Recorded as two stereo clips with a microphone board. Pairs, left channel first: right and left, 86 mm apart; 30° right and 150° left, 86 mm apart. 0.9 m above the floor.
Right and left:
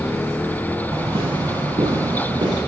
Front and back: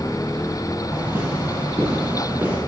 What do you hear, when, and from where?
0.9 s footsteps: 90° left, 5.5 m; by 2.6 s 80° left, 7 m